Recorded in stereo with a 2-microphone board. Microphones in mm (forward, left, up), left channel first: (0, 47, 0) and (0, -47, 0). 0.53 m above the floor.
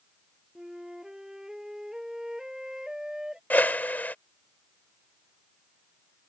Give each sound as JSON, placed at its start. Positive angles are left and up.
{"t": 0.6, "sound": "a flute", "side_deg": -5}
{"t": 3.5, "sound": "a whoosh", "side_deg": 20}